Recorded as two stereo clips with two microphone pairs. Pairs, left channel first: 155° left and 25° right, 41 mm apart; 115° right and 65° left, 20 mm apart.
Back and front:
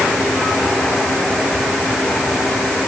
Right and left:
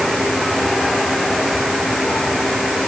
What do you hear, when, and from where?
Only background noise.